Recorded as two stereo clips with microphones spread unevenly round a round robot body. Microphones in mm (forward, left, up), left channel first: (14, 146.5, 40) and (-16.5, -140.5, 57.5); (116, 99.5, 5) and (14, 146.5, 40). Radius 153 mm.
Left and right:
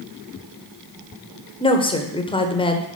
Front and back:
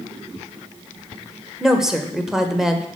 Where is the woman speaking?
40° left, 1.1 m.